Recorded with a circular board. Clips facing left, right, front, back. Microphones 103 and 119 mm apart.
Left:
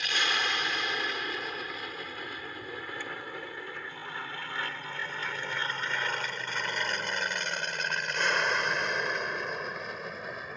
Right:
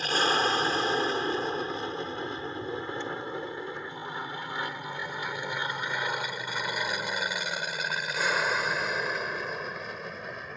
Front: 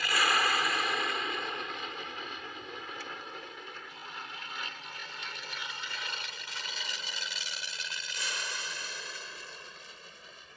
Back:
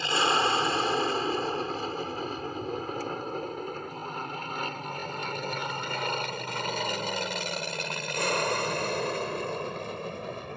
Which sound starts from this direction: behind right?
An aircraft, at 0.0 s.